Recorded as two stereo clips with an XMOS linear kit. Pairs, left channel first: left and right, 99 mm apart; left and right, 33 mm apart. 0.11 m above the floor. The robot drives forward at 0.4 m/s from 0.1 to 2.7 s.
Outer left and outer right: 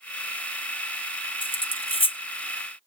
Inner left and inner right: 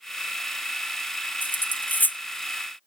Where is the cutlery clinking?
70° left (ahead or behind); by 2.2 s 75° left (ahead or behind).